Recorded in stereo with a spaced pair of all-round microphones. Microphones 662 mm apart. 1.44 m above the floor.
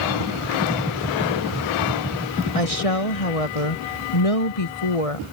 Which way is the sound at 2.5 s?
60° left (ahead or behind).